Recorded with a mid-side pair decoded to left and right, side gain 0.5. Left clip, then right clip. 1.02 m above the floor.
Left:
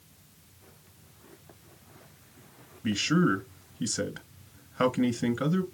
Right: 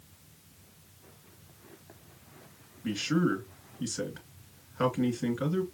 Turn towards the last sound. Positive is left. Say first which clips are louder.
# left 3 dB
turn(degrees=35)